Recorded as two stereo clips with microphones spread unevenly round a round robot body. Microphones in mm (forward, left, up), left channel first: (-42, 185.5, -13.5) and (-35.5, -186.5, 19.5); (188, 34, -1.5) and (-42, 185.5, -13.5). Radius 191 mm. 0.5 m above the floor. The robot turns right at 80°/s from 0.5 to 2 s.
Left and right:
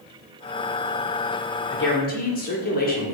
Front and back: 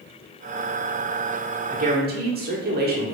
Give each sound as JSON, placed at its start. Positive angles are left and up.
{"t": 1.7, "sound": "a woman speaking", "azimuth_deg": 110, "distance_m": 1.0}